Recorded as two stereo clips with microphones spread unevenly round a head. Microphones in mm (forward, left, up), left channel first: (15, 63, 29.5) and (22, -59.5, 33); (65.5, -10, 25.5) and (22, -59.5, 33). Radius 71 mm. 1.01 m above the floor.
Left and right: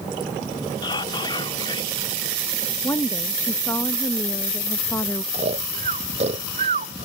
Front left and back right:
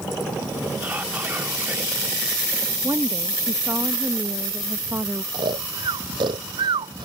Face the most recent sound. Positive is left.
turn(degrees=-130)